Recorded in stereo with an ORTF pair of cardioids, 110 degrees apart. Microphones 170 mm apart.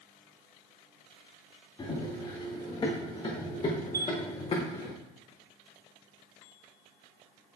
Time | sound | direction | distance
1.8 | running footsteps | 25° left | 6 m
3.9 | a chime | 20° right | 1.7 m